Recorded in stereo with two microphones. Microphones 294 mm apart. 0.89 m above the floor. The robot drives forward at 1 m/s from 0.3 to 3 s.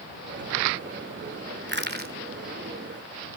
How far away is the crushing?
About 1.9 m.